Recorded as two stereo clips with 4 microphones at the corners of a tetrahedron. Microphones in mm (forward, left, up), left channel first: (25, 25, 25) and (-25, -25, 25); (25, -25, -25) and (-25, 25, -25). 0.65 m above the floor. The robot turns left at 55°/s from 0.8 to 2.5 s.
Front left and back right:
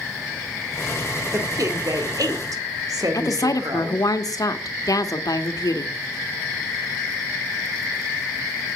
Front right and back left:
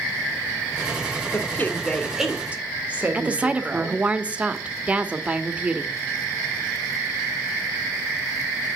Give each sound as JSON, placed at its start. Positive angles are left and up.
{"t": 1.3, "sound": "a woman speaking", "azimuth_deg": -90, "distance_m": 2.0}
{"t": 3.1, "sound": "a woman speaking", "azimuth_deg": 65, "distance_m": 1.5}